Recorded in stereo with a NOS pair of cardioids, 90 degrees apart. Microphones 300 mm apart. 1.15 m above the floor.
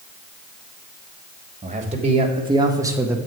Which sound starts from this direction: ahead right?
A man speaking, at 1.6 s.